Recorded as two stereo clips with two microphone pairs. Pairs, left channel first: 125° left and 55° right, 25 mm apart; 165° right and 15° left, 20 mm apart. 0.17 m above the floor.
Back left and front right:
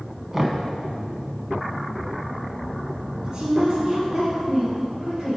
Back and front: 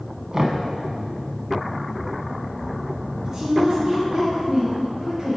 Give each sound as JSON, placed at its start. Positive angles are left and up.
{"t": 0.3, "sound": "knocking", "azimuth_deg": -5, "distance_m": 0.9}
{"t": 3.2, "sound": "a woman speaking", "azimuth_deg": -60, "distance_m": 2.0}